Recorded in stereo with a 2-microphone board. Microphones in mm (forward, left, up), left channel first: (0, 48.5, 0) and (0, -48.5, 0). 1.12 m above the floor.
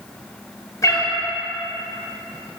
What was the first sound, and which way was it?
A cat meowing, 35° left (ahead or behind).